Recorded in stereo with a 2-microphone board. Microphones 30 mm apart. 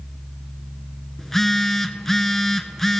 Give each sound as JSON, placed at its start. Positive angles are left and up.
{"t": 1.2, "sound": "a phone buzzing", "side_deg": 10, "distance_m": 0.5}